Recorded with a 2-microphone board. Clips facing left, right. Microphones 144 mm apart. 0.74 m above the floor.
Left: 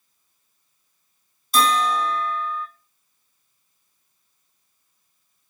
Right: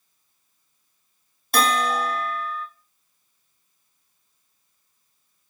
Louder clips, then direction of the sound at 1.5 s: Left 1 dB; 65° right (ahead or behind).